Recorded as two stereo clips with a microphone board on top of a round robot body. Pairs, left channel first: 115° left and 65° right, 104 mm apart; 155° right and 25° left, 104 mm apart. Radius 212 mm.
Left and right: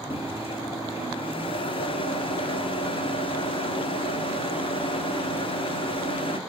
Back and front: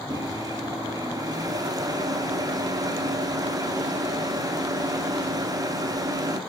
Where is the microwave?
75° left, 1.3 m.